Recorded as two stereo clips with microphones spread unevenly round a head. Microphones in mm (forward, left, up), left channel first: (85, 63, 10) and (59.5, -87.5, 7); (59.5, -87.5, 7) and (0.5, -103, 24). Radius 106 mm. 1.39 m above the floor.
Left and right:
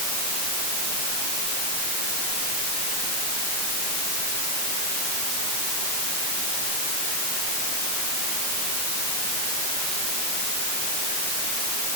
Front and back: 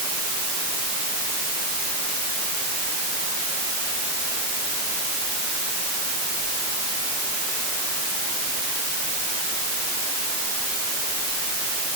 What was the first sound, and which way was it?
Only background noise.